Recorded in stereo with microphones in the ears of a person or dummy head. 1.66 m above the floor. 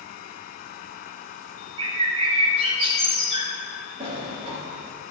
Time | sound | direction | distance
1.8 | a bird | 30° right (ahead or behind) | 1.0 m
4.0 | a sliding door | 25° right (ahead or behind) | 1.6 m